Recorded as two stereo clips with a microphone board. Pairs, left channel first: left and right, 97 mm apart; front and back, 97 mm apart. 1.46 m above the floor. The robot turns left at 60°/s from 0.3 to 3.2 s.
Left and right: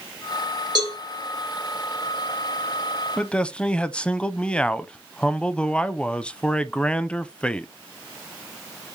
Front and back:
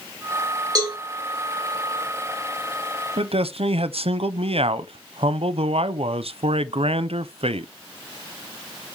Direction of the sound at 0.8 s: 135° right.